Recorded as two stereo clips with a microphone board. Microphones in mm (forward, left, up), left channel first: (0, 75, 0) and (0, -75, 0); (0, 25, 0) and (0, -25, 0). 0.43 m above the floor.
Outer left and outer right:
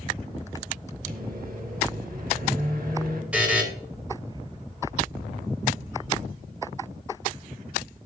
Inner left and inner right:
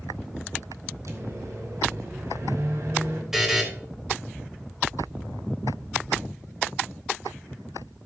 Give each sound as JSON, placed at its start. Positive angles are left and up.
{"t": 1.1, "sound": "a microwave", "side_deg": -75, "distance_m": 1.9}
{"t": 3.3, "sound": "a buzzer", "side_deg": -10, "distance_m": 2.5}